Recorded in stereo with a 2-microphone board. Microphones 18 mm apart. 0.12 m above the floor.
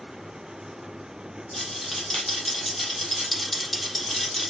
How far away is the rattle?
About 4.5 m.